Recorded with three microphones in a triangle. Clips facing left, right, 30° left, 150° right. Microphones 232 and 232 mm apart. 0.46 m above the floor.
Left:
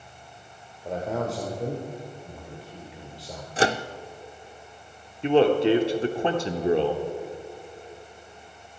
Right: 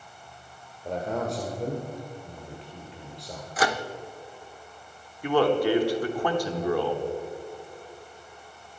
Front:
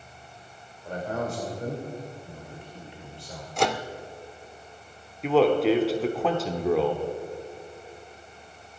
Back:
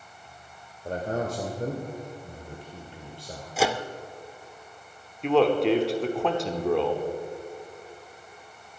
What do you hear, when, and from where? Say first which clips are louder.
0.8 s a man speaking: left 1 dB, back 2 dB; straight behind, 1.7 m
3.6 s a microwave: left 3 dB, even; 130° left, 0.6 m
5.2 s a man speaking: left 3 dB, front 1 dB; 115° left, 1.1 m